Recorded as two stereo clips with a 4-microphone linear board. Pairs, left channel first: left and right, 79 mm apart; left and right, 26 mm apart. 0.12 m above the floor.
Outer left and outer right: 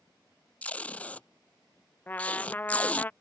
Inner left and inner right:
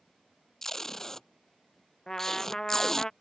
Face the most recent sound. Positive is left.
turn(degrees=25)  # may be behind; listen again after turning